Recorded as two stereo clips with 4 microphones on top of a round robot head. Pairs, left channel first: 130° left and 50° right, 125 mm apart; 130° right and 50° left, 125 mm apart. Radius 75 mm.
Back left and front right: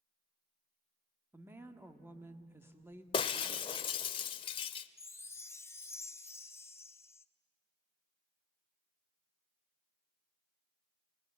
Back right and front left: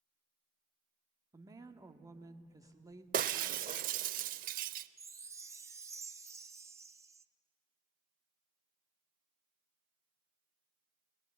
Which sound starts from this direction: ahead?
A woman speaking, at 1.3 s.